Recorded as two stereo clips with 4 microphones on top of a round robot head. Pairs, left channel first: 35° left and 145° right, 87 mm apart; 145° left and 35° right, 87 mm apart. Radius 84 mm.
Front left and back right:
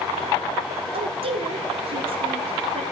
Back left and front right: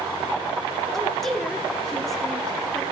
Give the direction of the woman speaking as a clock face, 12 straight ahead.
4 o'clock.